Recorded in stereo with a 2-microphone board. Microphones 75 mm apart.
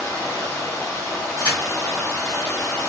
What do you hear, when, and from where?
0.0 s running water: 45° left (ahead or behind), 1.7 m
1.4 s a crack: 75° left (ahead or behind), 1.2 m